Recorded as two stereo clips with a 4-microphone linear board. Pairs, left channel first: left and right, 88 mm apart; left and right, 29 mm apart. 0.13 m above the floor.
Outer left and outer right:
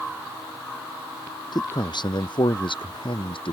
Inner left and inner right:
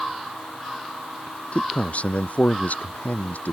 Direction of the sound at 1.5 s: 55° left (ahead or behind).